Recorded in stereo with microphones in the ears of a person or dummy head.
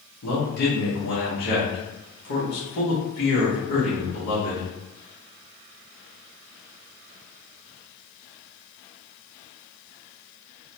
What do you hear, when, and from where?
0.2 s a man speaking: 55° left (ahead or behind), 1.0 m